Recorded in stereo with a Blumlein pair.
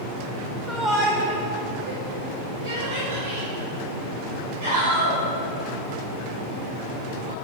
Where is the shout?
Straight ahead, 0.8 m; by 7.3 s 70° right, 6.5 m.